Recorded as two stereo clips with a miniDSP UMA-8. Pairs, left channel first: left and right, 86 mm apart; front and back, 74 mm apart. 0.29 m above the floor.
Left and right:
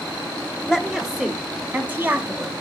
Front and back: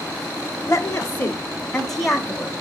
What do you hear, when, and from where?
0.7 s a woman speaking: 10° left, 1.1 m; by 2.5 s 110° right, 1.1 m